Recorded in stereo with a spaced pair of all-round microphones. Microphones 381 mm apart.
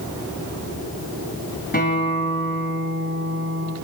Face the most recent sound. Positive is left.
turn(degrees=25)  # may be behind; listen again after turning